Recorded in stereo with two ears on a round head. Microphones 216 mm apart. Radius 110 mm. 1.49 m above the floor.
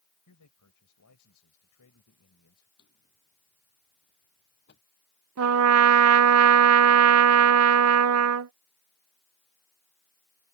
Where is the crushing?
No crushing in this recording.